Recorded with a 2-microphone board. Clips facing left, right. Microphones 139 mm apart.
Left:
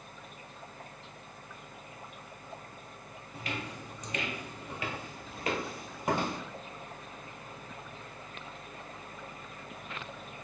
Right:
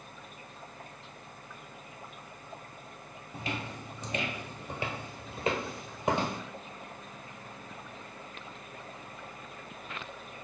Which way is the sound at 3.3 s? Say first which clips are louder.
Right 2 dB; 30° right (ahead or behind).